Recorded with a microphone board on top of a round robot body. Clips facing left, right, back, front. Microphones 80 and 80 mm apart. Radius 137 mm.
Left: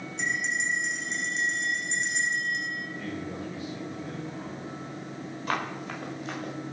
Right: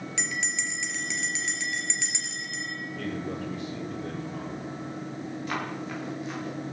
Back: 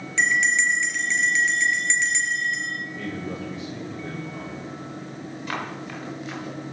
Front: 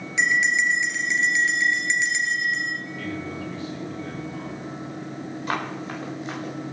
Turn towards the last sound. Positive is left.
turn(degrees=50)